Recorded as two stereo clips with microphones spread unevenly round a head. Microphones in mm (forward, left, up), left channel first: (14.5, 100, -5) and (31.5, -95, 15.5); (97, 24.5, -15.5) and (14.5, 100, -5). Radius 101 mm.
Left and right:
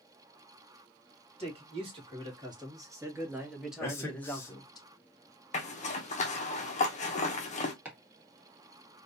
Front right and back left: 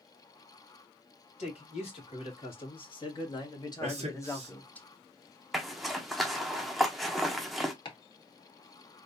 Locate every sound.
1.4 s a man speaking: 25° right, 2.5 m; by 4.8 s 30° left, 1.2 m
3.8 s a man speaking: 165° left, 1.2 m
5.5 s a zipper: 45° left, 0.9 m
7.8 s chopping: straight ahead, 1.6 m